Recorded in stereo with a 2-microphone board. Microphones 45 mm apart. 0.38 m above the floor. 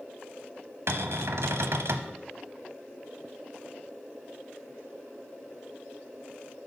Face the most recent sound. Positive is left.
turn(degrees=-80)